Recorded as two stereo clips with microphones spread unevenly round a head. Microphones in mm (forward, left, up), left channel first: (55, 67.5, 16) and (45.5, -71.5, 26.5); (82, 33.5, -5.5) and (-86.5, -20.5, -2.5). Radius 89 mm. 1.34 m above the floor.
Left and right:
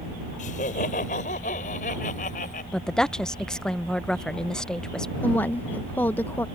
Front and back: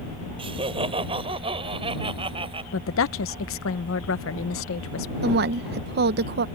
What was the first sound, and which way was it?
Laughter, 135° left.